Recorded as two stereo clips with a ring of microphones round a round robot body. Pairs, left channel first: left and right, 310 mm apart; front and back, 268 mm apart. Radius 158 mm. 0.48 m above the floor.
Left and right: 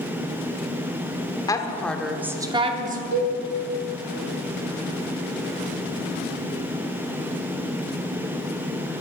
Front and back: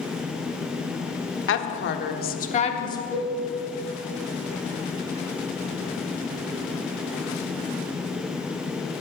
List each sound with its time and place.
1.5 s a woman speaking: 15° left, 1.2 m; by 3.0 s 65° right, 0.9 m
3.1 s a cowbell: 85° right, 3 m